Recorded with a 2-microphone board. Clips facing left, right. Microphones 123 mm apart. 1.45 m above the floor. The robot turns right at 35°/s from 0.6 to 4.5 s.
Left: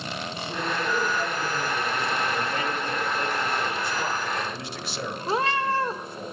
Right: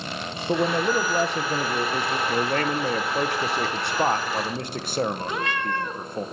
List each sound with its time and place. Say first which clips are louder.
0.5 s a man speaking: right 7 dB; 110° right, 1.0 m; by 2.2 s 55° right, 1.0 m
2.3 s a man speaking: right 4 dB; 130° right, 0.7 m; by 6.3 s 50° right, 0.7 m
5.3 s a cat meowing: left 3 dB; 35° left (ahead or behind), 0.7 m